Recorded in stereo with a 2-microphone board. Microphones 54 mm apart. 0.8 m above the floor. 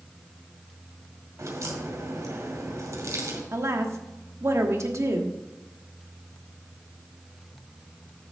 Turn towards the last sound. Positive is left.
turn(degrees=-55)  # may be behind; listen again after turning